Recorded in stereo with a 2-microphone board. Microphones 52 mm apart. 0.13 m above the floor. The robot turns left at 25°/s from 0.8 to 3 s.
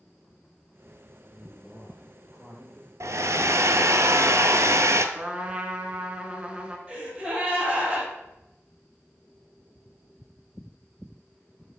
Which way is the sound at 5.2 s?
20° right (ahead or behind).